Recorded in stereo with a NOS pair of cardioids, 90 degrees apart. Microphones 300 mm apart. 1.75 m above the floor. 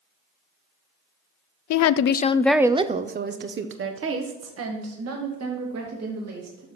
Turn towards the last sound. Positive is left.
turn(degrees=-55)